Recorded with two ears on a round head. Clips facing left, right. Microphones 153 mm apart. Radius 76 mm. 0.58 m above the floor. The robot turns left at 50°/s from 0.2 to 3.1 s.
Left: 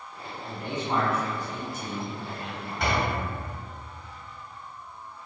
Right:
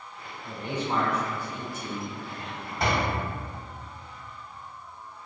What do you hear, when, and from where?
0.5 s a man speaking: 25° right (ahead or behind), 1.6 m; by 2.9 s 65° left (ahead or behind), 1.6 m
2.8 s a door slam: 25° right (ahead or behind), 1.9 m; by 3.1 s 40° right (ahead or behind), 1.9 m